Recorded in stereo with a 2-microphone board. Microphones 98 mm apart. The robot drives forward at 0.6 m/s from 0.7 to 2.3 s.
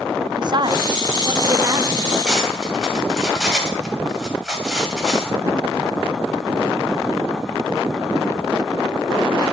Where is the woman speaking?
45° right (ahead or behind), 0.7 m; by 2.0 s 25° right (ahead or behind), 1.2 m.